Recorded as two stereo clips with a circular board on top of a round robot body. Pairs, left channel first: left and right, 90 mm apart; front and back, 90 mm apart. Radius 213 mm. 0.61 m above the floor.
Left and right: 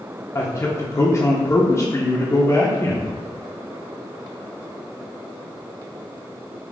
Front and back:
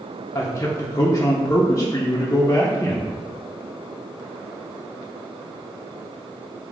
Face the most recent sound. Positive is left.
turn(degrees=45)